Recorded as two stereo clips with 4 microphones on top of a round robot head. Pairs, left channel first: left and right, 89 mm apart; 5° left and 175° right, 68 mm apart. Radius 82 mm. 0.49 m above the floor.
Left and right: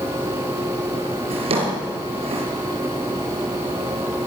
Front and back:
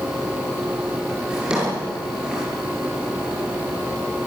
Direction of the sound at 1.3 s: 95° right.